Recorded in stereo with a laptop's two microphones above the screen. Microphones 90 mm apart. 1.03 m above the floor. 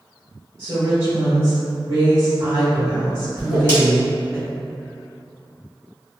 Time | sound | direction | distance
0.6 | a woman speaking | 35° right (ahead or behind) | 0.9 m
3.4 | a whoosh | 25° right (ahead or behind) | 1.3 m